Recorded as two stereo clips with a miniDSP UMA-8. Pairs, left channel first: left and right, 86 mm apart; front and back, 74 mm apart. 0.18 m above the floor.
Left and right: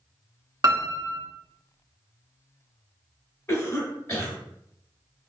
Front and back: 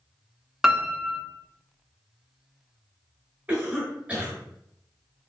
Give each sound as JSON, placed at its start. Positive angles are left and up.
{"t": 0.6, "sound": "a piano", "azimuth_deg": -95, "distance_m": 0.5}
{"t": 3.5, "sound": "a cough", "azimuth_deg": 125, "distance_m": 1.7}